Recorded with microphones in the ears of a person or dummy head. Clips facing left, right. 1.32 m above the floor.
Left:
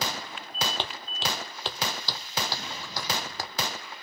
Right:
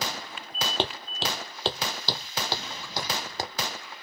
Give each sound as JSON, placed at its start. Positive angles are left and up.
{"t": 0.8, "sound": "footsteps", "side_deg": -40}